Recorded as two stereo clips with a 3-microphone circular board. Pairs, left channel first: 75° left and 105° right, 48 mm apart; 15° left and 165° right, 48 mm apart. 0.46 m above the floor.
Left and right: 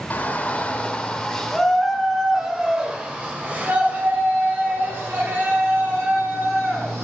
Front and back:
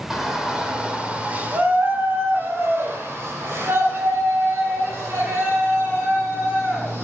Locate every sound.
0.1 s a shout: 115° left, 2 m; by 7.0 s 140° right, 4.5 m